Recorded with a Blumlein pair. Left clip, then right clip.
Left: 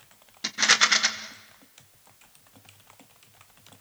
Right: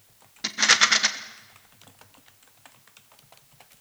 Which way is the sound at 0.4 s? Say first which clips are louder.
Right 1 dB; 5° right.